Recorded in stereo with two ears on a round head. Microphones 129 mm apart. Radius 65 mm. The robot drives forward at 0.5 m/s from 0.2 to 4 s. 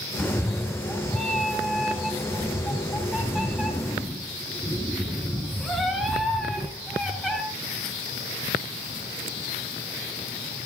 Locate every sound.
0.2 s a cat meowing: 5° left (ahead or behind), 0.7 m; by 7.4 s centre (ahead or behind), 2.5 m